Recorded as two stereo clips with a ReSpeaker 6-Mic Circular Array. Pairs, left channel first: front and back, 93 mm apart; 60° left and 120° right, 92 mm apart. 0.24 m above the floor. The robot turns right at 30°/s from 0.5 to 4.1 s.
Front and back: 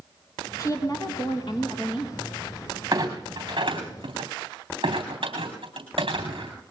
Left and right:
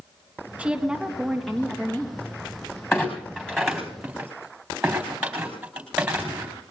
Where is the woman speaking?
45° right, 3 m; by 2.1 s straight ahead, 3 m.